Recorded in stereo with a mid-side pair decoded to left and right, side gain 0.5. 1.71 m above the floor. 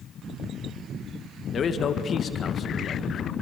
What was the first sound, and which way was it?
A man speaking, 50° left.